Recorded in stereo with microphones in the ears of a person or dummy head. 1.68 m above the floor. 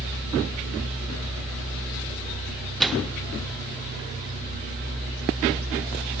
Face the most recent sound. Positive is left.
turn(degrees=-5)  # may be behind; listen again after turning